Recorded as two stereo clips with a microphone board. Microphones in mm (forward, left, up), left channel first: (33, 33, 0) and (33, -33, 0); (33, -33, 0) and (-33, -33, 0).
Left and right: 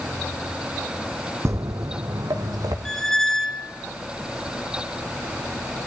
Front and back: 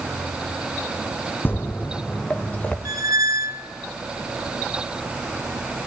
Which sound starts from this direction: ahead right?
Footsteps, at 1.4 s.